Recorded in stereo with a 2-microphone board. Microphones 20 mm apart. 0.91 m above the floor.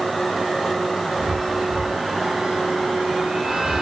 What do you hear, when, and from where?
1.2 s a chime: 55° right (ahead or behind), 7.5 m